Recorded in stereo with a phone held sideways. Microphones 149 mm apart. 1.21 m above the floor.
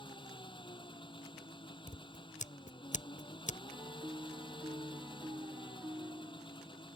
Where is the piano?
20° right (ahead or behind).